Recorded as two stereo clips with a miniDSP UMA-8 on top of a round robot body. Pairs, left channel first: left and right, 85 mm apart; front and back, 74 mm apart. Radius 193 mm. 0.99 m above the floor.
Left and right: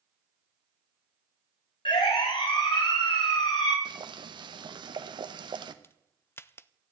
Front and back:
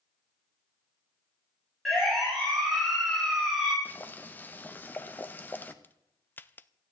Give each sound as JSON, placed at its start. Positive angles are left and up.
{"t": 1.9, "sound": "a siren", "azimuth_deg": 90, "distance_m": 9.0}
{"t": 3.9, "sound": "boiling", "azimuth_deg": -65, "distance_m": 1.2}
{"t": 5.8, "sound": "a crack", "azimuth_deg": 45, "distance_m": 0.8}